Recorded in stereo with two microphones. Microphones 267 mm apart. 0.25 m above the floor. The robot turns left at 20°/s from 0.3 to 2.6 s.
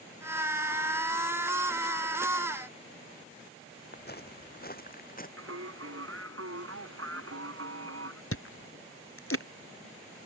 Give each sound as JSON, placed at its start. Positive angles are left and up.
{"t": 3.9, "sound": "footsteps", "side_deg": 40}
{"t": 5.4, "sound": "singing", "side_deg": -60}
{"t": 8.3, "sound": "chewing", "side_deg": 55}